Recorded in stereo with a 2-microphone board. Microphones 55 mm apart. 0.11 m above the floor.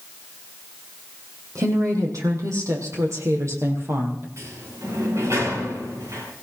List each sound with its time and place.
1.6 s a woman speaking: 75° right (ahead or behind), 5.5 m; by 4.3 s 45° right (ahead or behind), 4.5 m
4.4 s a sliding door: 60° right (ahead or behind), 8.5 m